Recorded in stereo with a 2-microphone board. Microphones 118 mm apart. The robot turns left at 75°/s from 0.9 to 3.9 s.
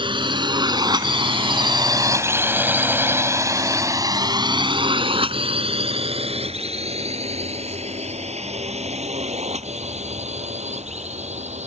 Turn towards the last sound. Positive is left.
turn(degrees=-70)  # may be behind; listen again after turning